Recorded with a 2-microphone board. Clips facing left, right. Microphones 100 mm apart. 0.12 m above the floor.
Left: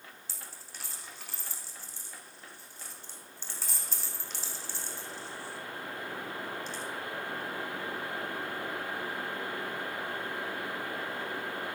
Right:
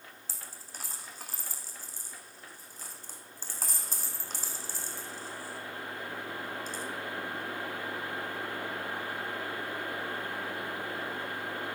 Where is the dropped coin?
40° right (ahead or behind), 1.4 m.